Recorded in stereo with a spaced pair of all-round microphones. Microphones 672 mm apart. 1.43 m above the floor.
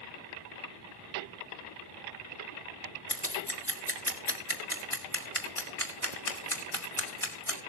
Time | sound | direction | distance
3.1 | scissors | 5° left (ahead or behind) | 3 m